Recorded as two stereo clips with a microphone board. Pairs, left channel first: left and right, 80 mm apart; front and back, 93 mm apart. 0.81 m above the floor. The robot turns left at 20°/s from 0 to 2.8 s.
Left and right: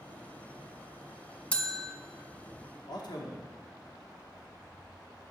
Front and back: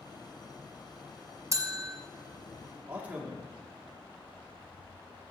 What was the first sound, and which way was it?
A bell, 155° left.